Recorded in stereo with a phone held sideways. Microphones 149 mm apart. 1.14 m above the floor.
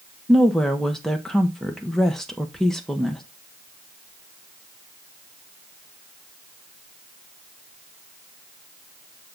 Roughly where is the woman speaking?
Centre.